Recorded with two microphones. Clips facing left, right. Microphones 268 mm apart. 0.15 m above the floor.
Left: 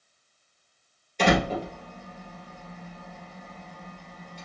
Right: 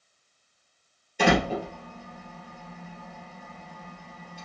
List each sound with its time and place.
1.2 s a door slam: 10° right (ahead or behind), 2.5 m